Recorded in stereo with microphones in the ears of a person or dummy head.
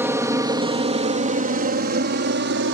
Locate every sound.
0.0 s an aircraft: 10° right (ahead or behind); by 2.8 s 60° right (ahead or behind)